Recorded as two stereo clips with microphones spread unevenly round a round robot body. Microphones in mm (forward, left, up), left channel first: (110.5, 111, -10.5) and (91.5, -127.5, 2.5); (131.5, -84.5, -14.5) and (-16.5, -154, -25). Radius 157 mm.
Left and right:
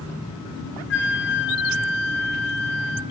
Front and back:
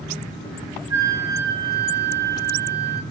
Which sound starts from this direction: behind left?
A flute, at 0.9 s.